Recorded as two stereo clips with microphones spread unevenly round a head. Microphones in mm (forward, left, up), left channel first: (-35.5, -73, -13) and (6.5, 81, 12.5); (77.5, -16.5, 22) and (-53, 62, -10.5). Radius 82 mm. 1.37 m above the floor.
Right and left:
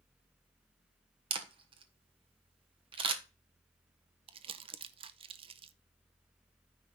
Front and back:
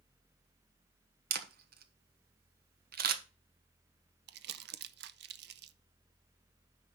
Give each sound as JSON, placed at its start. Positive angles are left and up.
{"t": 1.3, "sound": "a camera shutter", "azimuth_deg": 135, "distance_m": 1.3}
{"t": 4.3, "sound": "crumpling", "azimuth_deg": 130, "distance_m": 0.7}